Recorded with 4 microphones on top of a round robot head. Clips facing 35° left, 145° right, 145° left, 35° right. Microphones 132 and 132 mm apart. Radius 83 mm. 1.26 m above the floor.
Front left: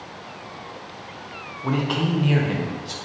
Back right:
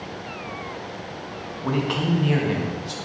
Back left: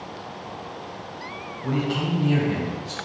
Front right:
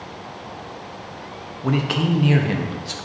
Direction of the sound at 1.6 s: 55° right.